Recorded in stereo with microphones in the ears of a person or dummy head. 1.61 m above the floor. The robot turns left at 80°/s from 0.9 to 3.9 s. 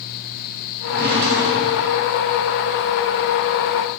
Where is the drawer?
60° right, 1.7 m; by 2.0 s 150° right, 1.7 m.